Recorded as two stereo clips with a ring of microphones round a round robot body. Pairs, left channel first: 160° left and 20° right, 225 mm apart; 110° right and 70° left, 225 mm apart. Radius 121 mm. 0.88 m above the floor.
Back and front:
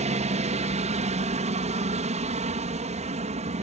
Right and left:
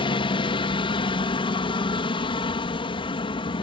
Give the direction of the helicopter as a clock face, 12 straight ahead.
2 o'clock.